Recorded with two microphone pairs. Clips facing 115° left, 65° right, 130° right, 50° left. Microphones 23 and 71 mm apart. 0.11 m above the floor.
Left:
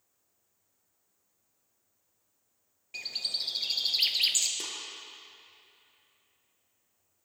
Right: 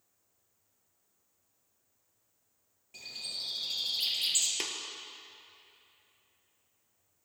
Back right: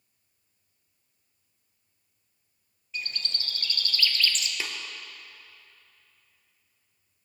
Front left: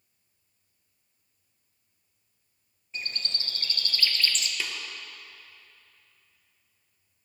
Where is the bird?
100° left, 1.1 m.